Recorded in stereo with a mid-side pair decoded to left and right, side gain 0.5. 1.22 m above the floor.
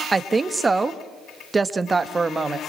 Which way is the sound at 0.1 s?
25° right.